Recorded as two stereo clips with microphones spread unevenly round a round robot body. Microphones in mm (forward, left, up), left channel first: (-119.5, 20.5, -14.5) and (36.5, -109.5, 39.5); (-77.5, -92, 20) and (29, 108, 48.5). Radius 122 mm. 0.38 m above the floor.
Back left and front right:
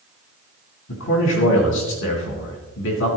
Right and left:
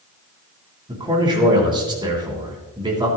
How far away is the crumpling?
No crumpling in this recording.